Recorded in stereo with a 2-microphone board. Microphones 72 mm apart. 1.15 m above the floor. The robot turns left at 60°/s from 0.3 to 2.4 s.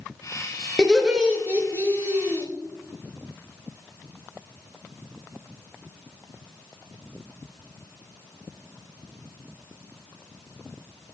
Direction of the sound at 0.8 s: 5° left.